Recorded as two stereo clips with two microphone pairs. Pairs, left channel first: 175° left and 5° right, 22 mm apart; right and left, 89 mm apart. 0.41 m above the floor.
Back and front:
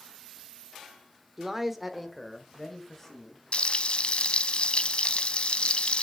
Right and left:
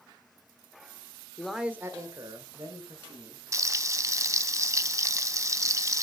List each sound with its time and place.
1.4 s a man speaking: 35° right, 0.9 m; by 3.4 s 100° left, 2.5 m
3.5 s frying: 140° left, 0.5 m